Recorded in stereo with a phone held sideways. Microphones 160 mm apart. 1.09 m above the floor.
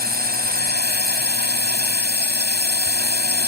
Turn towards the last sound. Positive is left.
turn(degrees=-80)